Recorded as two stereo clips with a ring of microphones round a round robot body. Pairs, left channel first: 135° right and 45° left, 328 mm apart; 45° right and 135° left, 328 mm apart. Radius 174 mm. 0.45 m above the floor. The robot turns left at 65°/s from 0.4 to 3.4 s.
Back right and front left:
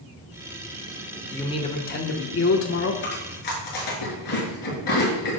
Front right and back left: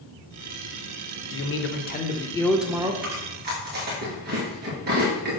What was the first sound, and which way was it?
A man speaking, 55° right.